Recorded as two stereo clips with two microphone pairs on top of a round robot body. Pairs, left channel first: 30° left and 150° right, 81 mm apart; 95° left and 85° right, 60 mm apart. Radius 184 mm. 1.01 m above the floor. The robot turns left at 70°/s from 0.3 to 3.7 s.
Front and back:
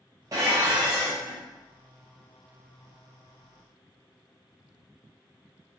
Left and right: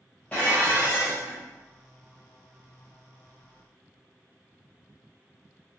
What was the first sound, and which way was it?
Dishes clattering, 165° left.